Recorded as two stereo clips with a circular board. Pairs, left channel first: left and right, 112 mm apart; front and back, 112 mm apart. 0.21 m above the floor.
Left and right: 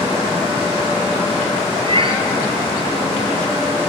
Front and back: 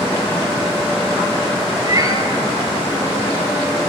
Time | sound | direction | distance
1.8 | a cat meowing | 125° right | 1.0 m